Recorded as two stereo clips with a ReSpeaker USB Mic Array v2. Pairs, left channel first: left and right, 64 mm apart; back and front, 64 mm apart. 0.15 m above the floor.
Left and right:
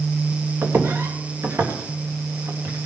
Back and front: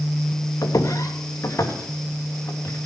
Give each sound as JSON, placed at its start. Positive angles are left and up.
{"t": 0.6, "sound": "footsteps", "azimuth_deg": -145, "distance_m": 1.9}